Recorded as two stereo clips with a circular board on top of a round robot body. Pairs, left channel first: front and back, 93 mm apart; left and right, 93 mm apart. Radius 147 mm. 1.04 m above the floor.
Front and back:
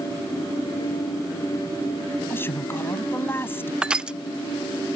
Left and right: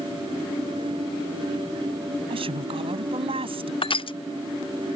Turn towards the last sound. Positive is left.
turn(degrees=100)